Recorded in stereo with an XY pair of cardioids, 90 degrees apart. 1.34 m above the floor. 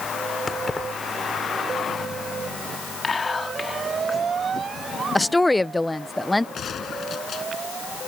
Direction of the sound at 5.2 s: 10° left.